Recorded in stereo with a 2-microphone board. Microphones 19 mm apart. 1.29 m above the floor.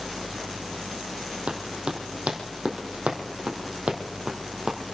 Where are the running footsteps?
65° right (ahead or behind), 3.5 m; by 4.8 s 50° right (ahead or behind), 3 m.